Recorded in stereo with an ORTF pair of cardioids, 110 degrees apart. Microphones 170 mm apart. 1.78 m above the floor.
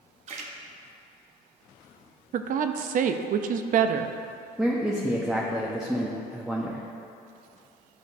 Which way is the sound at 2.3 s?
55° right.